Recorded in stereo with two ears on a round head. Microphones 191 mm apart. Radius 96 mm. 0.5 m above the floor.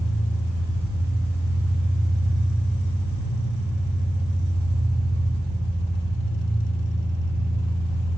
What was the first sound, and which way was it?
An engine running, 45° left (ahead or behind).